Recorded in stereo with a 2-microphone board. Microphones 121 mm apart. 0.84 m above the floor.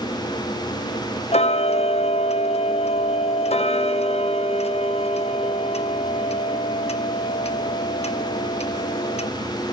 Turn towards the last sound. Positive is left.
turn(degrees=60)  # may be behind; listen again after turning